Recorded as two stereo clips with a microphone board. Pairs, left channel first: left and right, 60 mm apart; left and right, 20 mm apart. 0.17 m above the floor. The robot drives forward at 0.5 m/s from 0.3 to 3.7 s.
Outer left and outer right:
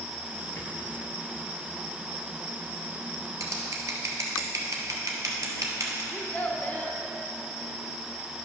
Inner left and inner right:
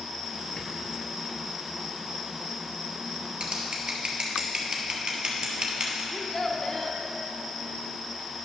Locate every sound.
0.6 s a rattle: 50° left (ahead or behind), 1.1 m; by 1.5 s 35° left (ahead or behind), 1.4 m
3.4 s scissors: 65° right (ahead or behind), 1.2 m; by 6.0 s 60° right (ahead or behind), 1.2 m
6.1 s a child speaking: 25° left (ahead or behind), 0.8 m